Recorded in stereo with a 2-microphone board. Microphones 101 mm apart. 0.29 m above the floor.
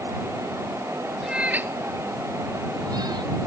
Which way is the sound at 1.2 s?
5° right (ahead or behind).